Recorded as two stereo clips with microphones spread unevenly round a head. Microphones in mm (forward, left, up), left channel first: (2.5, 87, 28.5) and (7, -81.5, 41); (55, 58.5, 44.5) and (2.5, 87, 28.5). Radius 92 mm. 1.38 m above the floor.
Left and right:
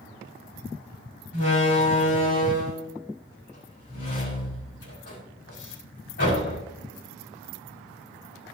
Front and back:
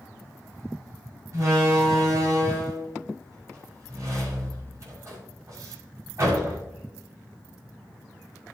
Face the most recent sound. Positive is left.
turn(degrees=120)